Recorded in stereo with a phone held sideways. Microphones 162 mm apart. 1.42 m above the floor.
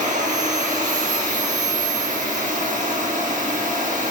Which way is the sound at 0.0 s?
50° right (ahead or behind).